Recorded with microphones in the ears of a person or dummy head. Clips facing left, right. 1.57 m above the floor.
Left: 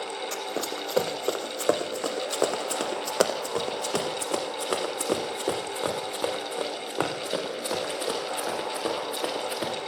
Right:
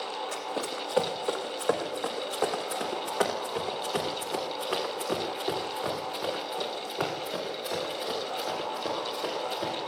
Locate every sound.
0.3 s running footsteps: 35° left (ahead or behind), 4.5 m; by 9.7 s 75° left (ahead or behind), 8 m